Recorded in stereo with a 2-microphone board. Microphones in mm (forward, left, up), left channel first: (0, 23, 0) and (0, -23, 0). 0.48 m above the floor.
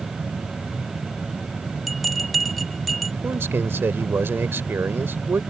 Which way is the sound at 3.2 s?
60° right (ahead or behind).